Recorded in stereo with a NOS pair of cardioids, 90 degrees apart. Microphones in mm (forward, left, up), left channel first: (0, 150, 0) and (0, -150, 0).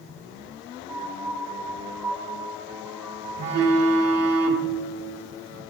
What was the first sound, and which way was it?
A piano, 10° right.